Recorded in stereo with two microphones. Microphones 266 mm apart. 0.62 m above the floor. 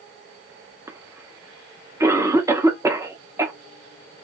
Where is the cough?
10° right (ahead or behind), 0.7 m.